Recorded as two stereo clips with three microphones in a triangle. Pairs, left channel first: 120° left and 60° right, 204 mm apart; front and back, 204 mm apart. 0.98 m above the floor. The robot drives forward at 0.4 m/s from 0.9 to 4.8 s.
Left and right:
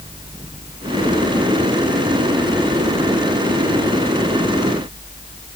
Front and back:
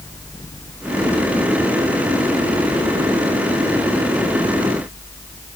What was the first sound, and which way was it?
Only background noise.